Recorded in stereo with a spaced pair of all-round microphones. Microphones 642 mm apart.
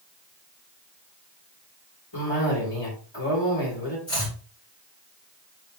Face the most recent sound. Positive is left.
turn(degrees=40)  # may be behind; listen again after turning